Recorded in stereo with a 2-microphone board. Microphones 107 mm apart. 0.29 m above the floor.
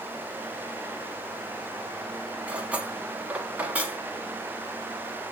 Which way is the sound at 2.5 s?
10° right (ahead or behind).